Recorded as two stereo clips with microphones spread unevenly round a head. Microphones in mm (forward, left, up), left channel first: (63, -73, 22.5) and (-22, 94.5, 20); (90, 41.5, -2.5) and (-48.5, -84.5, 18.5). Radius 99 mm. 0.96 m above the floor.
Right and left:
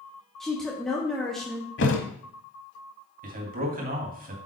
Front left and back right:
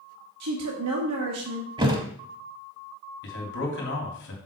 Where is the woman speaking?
150° right, 1.4 m.